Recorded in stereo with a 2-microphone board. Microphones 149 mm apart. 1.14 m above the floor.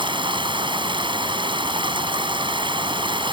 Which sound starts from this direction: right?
Running water, at 0.0 s.